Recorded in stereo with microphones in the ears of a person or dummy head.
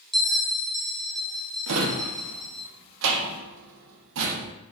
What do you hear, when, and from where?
0.1 s a bell: centre (ahead or behind), 0.5 m
1.7 s a drawer: 65° right (ahead or behind), 0.7 m